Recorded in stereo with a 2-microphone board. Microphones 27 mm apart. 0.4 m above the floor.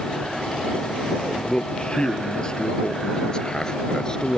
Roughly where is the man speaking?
Left.